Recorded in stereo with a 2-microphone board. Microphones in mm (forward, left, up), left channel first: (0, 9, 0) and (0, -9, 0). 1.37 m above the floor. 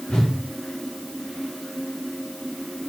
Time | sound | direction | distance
0.1 | a whoosh | 65° left (ahead or behind) | 2.5 m